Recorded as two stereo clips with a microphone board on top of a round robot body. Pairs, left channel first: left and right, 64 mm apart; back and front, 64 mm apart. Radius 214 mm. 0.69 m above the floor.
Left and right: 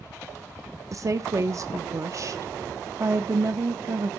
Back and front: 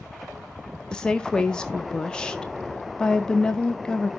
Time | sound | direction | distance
0.9 | a woman speaking | 105° right | 0.9 m